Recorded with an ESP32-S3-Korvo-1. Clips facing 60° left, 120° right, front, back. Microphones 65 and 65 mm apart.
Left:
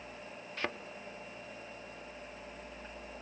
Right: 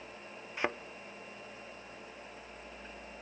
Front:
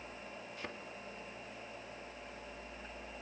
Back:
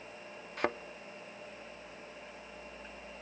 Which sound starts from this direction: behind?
A thud, at 0.6 s.